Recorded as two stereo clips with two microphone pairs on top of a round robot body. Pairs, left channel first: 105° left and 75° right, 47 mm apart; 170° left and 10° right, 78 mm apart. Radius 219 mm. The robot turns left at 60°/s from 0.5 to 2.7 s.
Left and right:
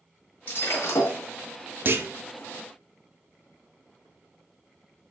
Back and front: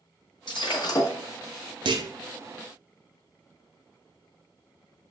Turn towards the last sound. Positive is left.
turn(degrees=-85)